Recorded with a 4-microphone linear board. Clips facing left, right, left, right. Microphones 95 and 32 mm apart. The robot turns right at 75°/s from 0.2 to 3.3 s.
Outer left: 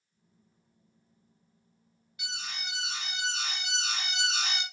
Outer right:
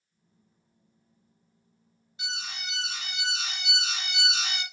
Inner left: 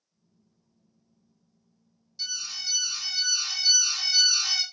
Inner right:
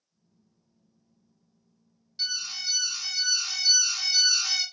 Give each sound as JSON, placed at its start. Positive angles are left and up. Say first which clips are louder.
{"t": 2.2, "sound": "an alarm", "louder": "outer right 3 dB, inner right 2 dB", "azimuth_deg": -30, "distance_m": 1.2}